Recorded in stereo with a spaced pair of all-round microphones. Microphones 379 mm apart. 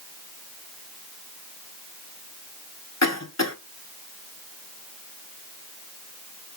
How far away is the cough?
About 1.4 m.